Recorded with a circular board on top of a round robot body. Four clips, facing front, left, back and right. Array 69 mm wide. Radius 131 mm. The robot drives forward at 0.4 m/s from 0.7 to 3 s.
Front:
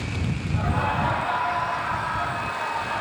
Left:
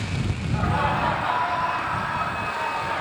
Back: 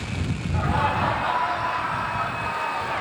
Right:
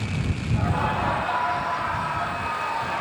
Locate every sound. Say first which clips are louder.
0.5 s laughter: left 2 dB, back 2 dB; 150° left, 0.9 m; by 3.0 s 165° left, 1.6 m